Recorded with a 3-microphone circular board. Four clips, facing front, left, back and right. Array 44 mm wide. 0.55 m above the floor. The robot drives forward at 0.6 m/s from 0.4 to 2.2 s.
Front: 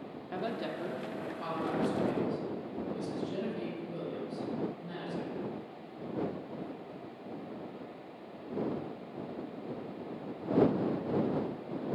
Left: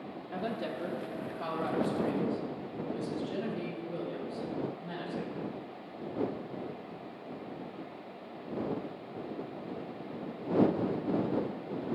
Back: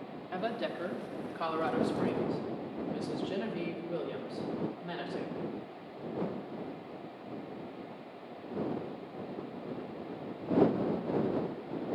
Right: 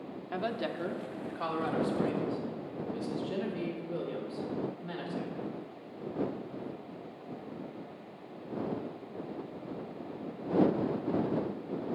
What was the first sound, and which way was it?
A woman speaking, 90° right.